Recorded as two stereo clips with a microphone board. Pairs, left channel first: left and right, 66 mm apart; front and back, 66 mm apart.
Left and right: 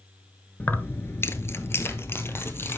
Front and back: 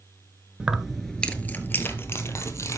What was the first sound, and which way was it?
Keys jangling, 120° left.